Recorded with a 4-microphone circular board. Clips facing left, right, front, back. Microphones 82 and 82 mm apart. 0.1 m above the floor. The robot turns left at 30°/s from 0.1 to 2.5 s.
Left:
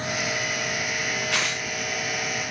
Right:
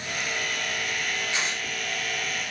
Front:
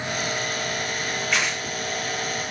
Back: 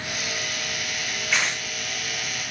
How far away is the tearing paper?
About 4 m.